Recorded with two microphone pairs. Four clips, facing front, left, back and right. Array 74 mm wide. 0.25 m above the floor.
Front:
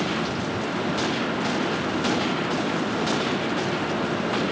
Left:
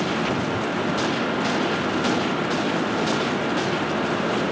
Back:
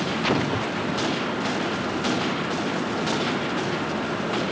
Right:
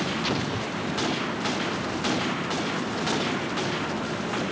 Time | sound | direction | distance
0.2 | an explosion | 175° left | ?